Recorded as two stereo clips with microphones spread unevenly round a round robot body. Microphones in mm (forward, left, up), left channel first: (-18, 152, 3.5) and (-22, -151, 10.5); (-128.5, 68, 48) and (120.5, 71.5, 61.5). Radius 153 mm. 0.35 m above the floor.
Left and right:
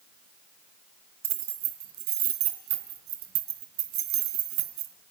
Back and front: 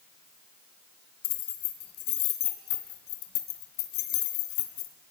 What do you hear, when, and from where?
1.2 s keys jangling: 140° right, 2.5 m